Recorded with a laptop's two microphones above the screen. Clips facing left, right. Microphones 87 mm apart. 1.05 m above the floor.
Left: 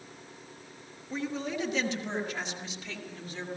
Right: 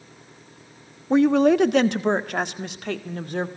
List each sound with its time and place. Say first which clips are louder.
1.1 s a woman speaking: right 18 dB; 80° right, 1.1 m; by 3.5 s 60° right (ahead or behind), 2.5 m